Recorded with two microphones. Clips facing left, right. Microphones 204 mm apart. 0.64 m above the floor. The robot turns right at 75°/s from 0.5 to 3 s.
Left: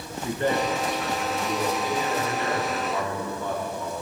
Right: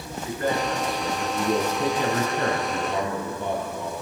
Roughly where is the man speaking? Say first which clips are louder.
Left 1 dB; behind left.